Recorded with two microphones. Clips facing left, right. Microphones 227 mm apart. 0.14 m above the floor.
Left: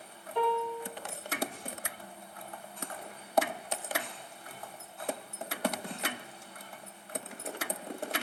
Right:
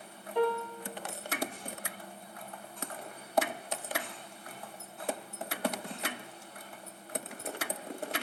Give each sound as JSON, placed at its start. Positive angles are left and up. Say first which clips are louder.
{"t": 0.3, "sound": "a piano", "louder": "right 1 dB", "side_deg": -15, "distance_m": 0.5}